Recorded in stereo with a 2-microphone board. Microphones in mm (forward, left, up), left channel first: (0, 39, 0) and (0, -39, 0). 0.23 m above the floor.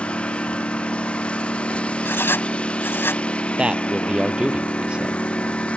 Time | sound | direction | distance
0.0 | a lawn mower | 15° left (ahead or behind) | ?
2.0 | writing | 30° left (ahead or behind) | ?
3.6 | a man speaking | 15° right (ahead or behind) | ?